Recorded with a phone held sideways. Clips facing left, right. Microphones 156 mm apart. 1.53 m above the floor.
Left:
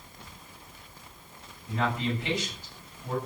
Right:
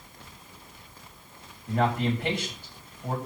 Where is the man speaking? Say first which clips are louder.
Right 4 dB; 55° right (ahead or behind), 7.5 m.